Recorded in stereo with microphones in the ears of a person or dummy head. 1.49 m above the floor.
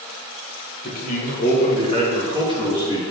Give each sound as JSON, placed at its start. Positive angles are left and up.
{"t": 0.8, "sound": "a man speaking", "side_deg": 45, "distance_m": 2.0}